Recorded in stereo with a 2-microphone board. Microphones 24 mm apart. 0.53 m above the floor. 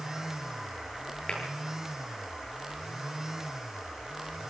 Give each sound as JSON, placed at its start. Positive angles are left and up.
{"t": 1.3, "sound": "tapping", "side_deg": 40, "distance_m": 8.5}